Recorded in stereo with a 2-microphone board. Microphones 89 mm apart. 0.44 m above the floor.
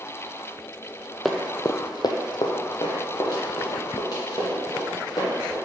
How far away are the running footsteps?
About 0.6 m.